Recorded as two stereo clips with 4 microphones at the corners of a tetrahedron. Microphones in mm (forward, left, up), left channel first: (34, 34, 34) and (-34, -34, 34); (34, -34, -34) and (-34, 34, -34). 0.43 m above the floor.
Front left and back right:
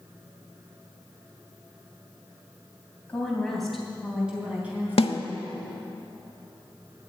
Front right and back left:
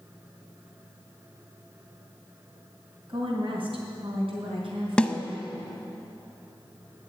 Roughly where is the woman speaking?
Behind left.